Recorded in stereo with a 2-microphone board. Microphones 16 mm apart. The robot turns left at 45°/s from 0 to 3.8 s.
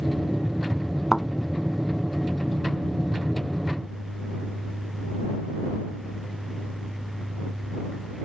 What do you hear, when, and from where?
1.1 s a thud: 5° left (ahead or behind); by 1.3 s 5° right (ahead or behind)